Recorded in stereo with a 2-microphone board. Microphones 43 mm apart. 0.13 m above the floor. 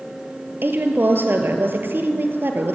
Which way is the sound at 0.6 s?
55° right (ahead or behind).